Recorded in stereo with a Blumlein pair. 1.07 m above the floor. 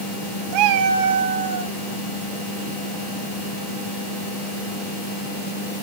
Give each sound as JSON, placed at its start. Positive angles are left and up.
{"t": 0.5, "sound": "a cat meowing", "azimuth_deg": -40, "distance_m": 0.7}